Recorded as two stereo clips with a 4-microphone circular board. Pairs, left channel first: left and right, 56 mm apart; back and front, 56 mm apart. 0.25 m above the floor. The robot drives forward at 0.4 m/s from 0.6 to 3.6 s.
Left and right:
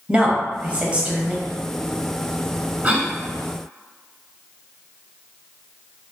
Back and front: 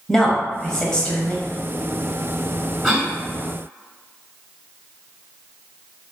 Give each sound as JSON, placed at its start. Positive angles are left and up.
{"t": 0.1, "sound": "a woman speaking", "azimuth_deg": -105, "distance_m": 1.1}
{"t": 2.8, "sound": "a cough", "azimuth_deg": -85, "distance_m": 1.0}